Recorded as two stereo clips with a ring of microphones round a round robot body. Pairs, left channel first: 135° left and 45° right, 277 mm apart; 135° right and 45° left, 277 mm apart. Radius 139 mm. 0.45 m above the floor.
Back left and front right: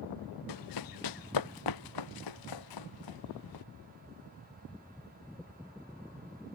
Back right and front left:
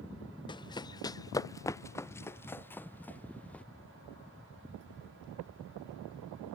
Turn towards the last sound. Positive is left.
turn(degrees=140)